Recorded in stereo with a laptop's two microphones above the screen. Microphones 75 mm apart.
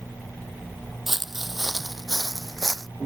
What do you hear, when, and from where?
1.1 s footsteps: 5° right (ahead or behind); by 2.9 s centre (ahead or behind)